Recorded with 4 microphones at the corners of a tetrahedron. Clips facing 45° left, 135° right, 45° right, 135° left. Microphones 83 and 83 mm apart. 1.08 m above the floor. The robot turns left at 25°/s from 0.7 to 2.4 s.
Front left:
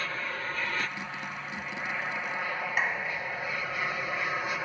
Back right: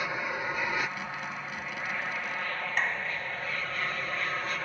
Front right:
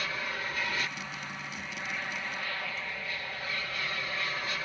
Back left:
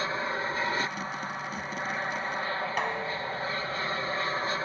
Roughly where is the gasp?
No gasp in this recording.